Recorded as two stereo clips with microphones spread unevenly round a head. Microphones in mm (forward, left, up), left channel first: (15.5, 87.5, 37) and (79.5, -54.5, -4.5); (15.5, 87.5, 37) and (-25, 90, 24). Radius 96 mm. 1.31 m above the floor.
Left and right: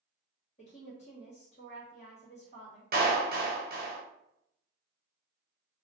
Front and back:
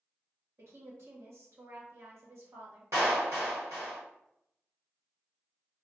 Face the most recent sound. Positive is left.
turn(degrees=-115)